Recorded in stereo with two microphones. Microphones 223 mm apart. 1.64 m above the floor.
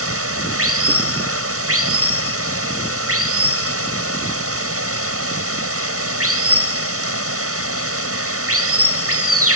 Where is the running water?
85° right.